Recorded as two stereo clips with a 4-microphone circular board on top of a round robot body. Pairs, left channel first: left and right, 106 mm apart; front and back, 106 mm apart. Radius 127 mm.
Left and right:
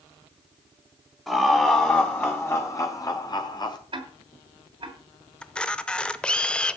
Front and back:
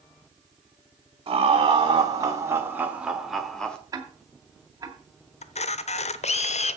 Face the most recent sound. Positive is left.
turn(degrees=10)